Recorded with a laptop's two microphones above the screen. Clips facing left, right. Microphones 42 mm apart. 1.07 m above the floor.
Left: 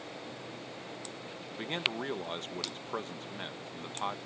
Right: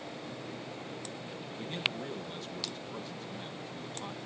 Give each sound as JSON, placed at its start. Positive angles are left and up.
{"t": 1.5, "sound": "a man speaking", "side_deg": 50}